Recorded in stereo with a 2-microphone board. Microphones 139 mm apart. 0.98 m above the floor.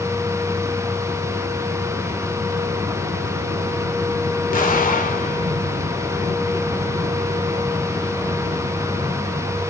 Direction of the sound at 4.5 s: 85° left.